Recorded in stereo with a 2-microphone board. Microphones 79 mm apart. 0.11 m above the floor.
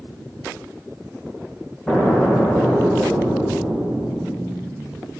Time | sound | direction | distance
1.9 | an explosion | 5° left (ahead or behind) | 2 m